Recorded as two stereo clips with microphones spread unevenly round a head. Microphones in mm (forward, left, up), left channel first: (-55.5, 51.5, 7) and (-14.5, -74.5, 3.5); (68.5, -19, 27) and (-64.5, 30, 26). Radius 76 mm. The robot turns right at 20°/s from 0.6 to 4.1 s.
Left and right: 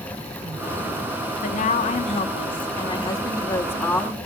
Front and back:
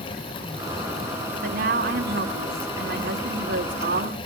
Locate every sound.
1.4 s a woman speaking: 135° left, 3 m; by 4.2 s 170° right, 3 m